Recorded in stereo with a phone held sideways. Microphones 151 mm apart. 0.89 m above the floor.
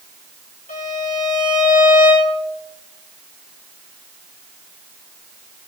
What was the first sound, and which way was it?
A violin, 65° left (ahead or behind).